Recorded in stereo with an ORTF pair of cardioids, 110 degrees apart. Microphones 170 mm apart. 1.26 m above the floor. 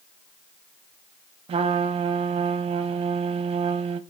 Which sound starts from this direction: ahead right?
A trumpet, at 1.5 s.